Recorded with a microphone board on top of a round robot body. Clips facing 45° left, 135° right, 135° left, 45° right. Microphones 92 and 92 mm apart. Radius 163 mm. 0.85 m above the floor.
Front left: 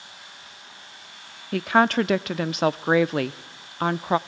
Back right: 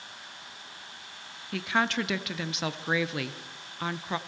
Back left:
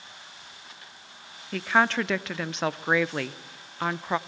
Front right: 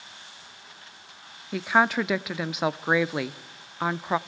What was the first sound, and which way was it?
A woman speaking, 35° left.